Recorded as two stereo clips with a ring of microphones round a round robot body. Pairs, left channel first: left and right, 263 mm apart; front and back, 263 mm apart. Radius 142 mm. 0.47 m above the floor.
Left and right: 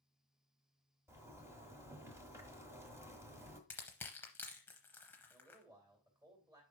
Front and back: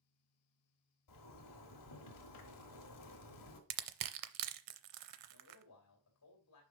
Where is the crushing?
175° left, 0.6 m.